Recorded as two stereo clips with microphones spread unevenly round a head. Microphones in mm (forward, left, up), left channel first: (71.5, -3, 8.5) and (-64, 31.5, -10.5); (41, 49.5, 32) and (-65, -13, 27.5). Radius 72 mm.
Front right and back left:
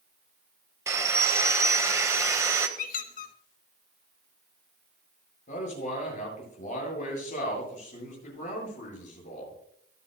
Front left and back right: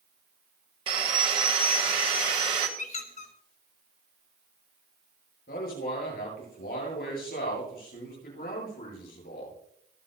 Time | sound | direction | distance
0.9 | sawing | 125° right | 1.2 m
2.8 | a squeak | 10° right | 1.0 m
5.5 | a man speaking | 20° left | 8.5 m